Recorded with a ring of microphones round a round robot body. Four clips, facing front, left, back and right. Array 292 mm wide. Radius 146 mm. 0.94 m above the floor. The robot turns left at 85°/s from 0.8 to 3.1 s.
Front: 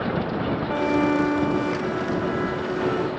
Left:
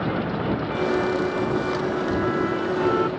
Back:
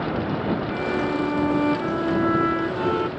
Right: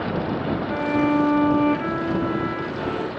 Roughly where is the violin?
Ahead right.